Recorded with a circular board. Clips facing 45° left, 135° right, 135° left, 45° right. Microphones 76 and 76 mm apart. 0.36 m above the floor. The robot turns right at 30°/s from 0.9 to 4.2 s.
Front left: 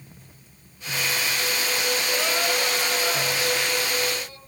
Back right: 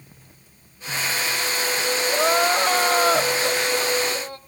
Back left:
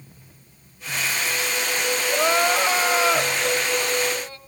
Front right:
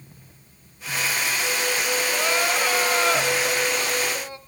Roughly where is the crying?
Behind.